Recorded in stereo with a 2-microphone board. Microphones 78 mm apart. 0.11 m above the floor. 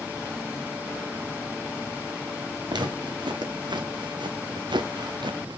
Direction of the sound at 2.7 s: 75° right (ahead or behind).